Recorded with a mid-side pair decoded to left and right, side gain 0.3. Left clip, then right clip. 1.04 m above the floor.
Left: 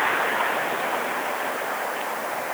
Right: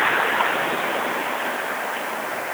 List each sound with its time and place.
Only background noise.